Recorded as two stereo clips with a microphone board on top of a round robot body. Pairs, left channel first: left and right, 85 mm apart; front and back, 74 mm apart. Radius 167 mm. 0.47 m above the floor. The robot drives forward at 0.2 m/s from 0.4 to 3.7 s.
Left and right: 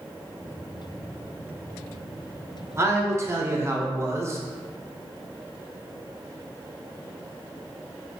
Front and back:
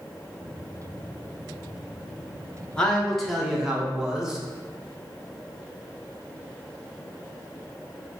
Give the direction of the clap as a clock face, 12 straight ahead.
I don't hear a clap.